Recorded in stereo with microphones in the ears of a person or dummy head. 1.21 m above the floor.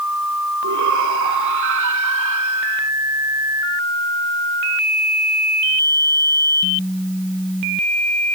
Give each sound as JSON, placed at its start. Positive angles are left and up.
{"t": 0.6, "sound": "a shout", "side_deg": -65}